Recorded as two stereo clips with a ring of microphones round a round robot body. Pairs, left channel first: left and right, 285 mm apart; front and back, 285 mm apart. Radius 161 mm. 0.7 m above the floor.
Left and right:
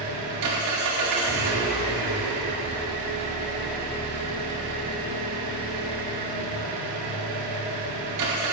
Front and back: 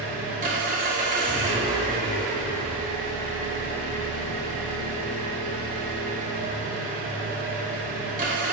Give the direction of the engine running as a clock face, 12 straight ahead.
4 o'clock.